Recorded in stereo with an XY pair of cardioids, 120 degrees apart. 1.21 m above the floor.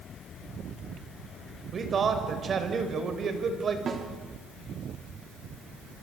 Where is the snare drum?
35° right, 3.5 m.